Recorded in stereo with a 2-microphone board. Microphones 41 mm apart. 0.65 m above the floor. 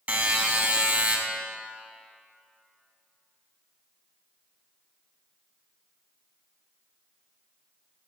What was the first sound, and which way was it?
A buzzer, 45° right (ahead or behind).